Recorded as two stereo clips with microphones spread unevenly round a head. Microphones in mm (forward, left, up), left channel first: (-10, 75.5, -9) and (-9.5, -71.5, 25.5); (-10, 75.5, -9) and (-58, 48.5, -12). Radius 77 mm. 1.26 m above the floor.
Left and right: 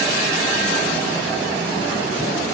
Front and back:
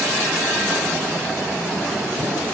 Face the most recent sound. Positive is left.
No sound to turn to.